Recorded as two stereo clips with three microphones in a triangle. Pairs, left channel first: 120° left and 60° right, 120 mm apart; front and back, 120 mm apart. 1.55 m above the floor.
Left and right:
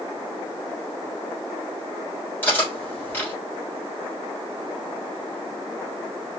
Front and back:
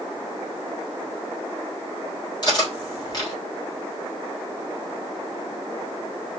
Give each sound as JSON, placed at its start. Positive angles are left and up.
{"t": 2.4, "sound": "cutlery clinking", "azimuth_deg": 50, "distance_m": 3.0}